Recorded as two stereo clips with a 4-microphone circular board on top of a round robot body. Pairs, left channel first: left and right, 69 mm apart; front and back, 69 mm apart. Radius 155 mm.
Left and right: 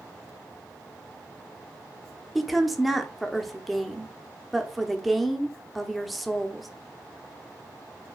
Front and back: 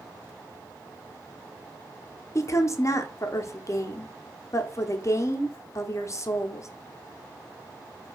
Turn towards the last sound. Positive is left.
turn(degrees=0)